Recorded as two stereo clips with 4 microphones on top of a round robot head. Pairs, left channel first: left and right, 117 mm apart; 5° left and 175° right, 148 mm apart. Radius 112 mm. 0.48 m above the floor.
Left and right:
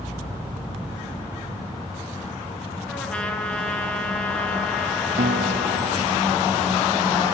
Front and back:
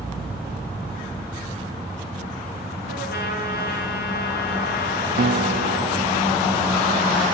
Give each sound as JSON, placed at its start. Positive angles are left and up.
{"t": 2.9, "sound": "a trumpet", "azimuth_deg": 10, "distance_m": 8.0}
{"t": 5.2, "sound": "a guitar", "azimuth_deg": -130, "distance_m": 0.5}